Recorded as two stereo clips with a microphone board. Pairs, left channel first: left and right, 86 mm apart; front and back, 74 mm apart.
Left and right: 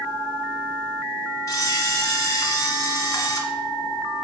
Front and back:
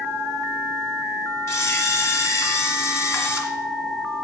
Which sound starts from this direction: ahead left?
A camera shutter, at 1.5 s.